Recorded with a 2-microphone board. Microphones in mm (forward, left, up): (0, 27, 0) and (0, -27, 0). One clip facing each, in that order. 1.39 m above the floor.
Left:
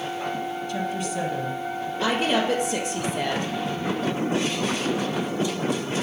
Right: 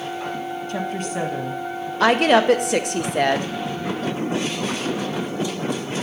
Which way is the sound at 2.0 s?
65° right (ahead or behind).